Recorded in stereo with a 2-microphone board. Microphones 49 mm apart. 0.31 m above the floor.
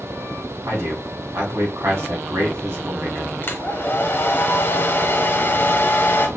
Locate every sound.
0.7 s a man speaking: 60° right (ahead or behind), 2.5 m
3.4 s a hair dryer: 45° left (ahead or behind), 1.3 m